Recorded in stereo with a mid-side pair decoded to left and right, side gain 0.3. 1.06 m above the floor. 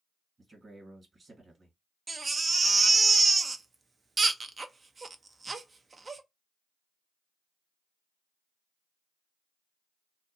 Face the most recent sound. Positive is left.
turn(degrees=-45)